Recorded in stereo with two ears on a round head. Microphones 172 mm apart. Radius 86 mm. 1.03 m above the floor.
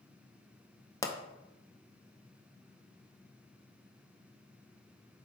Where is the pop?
15° left (ahead or behind), 0.6 m.